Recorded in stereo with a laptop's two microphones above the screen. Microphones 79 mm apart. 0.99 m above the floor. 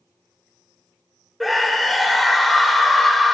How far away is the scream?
About 3 m.